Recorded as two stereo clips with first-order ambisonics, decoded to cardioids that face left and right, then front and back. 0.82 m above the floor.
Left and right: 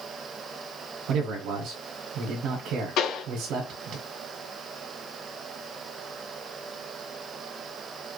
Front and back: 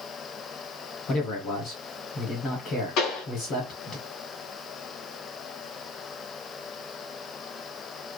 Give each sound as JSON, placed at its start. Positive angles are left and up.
{"t": 1.1, "sound": "a man speaking", "azimuth_deg": -55, "distance_m": 2.0}
{"t": 3.0, "sound": "a pop", "azimuth_deg": 40, "distance_m": 2.5}